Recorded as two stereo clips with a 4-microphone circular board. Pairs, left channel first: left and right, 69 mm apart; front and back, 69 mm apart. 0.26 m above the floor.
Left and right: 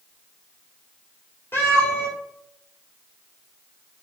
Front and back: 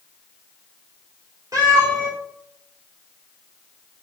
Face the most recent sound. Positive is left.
turn(degrees=145)